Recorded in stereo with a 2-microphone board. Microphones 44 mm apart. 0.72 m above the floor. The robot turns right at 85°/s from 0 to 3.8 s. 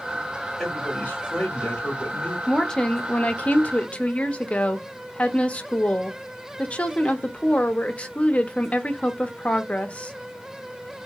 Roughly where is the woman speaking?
Ahead.